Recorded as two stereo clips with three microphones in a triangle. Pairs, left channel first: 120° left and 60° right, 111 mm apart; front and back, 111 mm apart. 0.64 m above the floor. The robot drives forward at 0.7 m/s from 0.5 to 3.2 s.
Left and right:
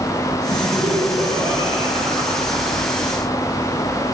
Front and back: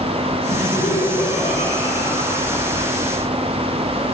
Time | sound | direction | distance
0.5 | laughter | 15° right | 9.5 m